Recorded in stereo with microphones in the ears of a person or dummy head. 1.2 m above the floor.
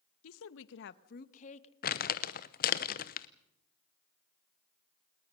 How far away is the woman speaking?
About 0.9 m.